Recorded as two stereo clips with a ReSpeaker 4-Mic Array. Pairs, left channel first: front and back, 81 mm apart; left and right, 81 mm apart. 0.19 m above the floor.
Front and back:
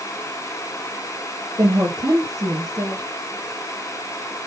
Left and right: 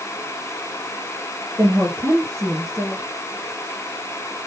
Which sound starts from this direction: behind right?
A woman speaking, at 1.6 s.